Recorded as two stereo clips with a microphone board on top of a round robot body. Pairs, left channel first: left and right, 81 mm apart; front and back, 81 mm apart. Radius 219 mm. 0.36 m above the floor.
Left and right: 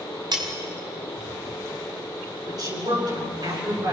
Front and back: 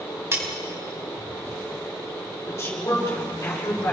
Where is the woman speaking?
60° right, 7.5 m.